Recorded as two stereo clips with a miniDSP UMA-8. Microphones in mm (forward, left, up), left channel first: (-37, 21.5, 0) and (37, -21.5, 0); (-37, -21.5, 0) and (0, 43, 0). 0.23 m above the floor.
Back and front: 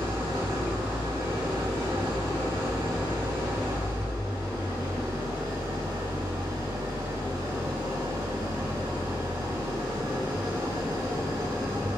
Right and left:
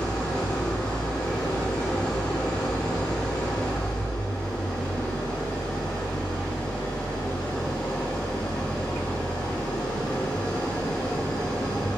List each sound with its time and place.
0.0 s an engine running: 45° right, 7 m